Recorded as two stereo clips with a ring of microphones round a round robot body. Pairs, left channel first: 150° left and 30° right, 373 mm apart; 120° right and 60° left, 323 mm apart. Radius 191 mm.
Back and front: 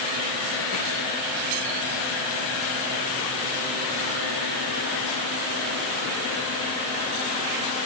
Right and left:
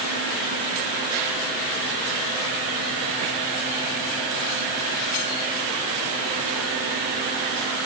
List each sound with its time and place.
Only background noise.